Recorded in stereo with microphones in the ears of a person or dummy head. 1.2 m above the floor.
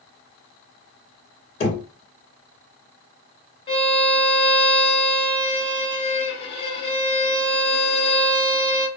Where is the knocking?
35° left (ahead or behind), 1.4 m.